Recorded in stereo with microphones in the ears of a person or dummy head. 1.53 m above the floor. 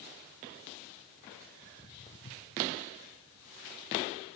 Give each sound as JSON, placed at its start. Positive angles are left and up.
{"t": 1.6, "sound": "footsteps", "side_deg": 10, "distance_m": 2.0}